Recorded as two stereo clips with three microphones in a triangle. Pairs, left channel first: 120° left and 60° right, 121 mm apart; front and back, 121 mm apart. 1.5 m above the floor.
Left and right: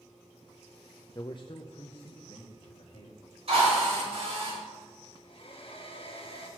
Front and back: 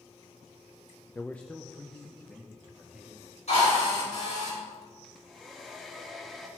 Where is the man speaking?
70° left, 0.5 m; by 3.2 s 90° left, 3.5 m.